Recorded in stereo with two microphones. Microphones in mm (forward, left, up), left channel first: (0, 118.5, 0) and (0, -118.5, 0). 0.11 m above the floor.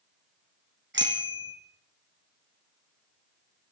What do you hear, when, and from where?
0.9 s a bicycle bell: 50° right (ahead or behind), 3.5 m